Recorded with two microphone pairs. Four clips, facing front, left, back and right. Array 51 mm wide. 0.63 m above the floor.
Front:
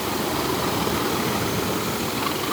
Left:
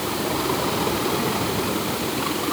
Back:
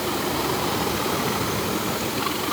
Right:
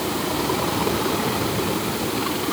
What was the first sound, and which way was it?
Only background noise.